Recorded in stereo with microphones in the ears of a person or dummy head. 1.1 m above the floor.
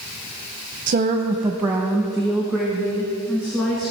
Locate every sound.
0.9 s a woman speaking: 45° right (ahead or behind), 0.6 m; by 3.9 s 15° left (ahead or behind), 2 m